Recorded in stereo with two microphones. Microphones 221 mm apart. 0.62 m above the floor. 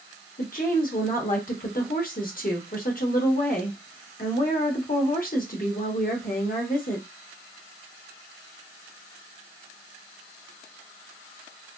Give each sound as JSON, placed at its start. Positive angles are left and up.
{"t": 0.4, "sound": "a woman speaking", "side_deg": 40, "distance_m": 0.9}